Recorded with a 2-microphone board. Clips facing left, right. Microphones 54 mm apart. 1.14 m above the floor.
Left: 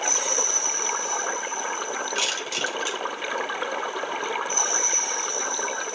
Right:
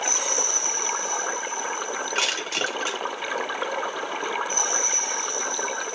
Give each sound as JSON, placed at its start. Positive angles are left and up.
{"t": 2.1, "sound": "crushing", "side_deg": -45, "distance_m": 2.0}